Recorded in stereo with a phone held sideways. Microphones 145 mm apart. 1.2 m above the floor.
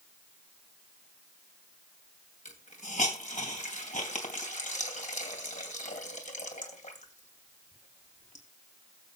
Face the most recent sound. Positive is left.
turn(degrees=60)  # may be behind; listen again after turning